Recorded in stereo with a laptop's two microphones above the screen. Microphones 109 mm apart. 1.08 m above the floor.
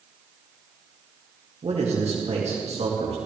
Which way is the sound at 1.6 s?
70° right (ahead or behind).